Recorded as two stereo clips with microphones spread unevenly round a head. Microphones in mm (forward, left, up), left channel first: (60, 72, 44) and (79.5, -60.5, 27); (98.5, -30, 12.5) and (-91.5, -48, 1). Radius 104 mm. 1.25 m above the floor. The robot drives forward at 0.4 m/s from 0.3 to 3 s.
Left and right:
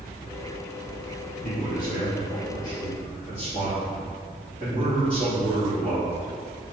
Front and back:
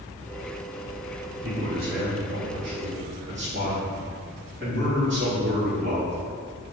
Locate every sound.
1.4 s a man speaking: 140° left, 2.5 m; by 6.2 s 145° left, 3 m